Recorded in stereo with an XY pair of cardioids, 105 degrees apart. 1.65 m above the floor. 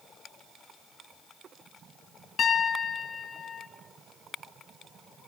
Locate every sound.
2.4 s a piano: 50° left, 3 m